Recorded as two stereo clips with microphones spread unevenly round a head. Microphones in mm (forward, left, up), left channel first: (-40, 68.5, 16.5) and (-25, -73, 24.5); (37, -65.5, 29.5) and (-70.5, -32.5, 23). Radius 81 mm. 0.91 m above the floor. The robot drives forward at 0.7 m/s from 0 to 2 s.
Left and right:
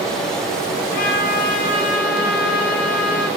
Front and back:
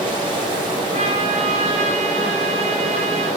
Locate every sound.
0.9 s a trumpet: 110° left, 4.5 m; by 3.3 s 120° left, 4.5 m